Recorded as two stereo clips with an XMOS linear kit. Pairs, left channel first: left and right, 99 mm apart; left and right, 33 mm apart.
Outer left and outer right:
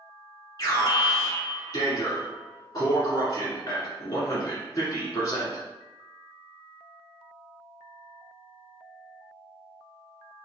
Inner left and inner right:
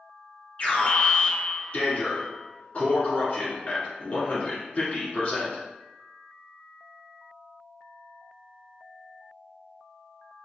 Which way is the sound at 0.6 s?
40° left (ahead or behind).